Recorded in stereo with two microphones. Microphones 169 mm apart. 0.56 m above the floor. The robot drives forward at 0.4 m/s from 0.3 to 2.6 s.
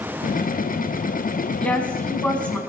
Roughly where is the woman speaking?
Centre.